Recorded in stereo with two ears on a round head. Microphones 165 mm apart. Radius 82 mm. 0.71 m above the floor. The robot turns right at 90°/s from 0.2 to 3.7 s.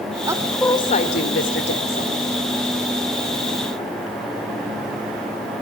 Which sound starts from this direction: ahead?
A woman speaking, at 0.3 s.